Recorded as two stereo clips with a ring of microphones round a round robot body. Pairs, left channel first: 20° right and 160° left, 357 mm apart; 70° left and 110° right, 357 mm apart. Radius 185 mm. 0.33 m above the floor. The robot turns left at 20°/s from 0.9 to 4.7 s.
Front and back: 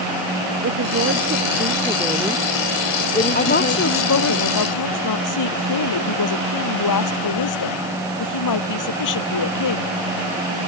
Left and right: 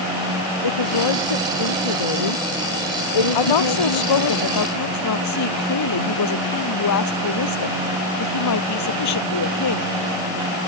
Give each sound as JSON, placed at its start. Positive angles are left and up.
{"t": 0.6, "sound": "a woman speaking", "azimuth_deg": 100}
{"t": 3.4, "sound": "a woman speaking", "azimuth_deg": 45}